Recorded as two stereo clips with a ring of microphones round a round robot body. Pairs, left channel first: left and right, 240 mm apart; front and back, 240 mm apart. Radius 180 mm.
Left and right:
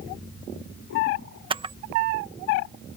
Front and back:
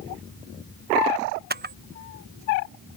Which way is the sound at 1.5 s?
150° right.